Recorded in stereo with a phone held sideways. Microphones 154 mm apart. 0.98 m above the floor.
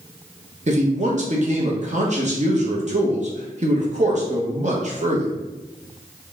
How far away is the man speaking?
About 0.9 m.